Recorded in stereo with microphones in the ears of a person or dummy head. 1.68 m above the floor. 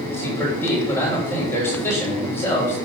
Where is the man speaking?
10° left (ahead or behind), 3 m.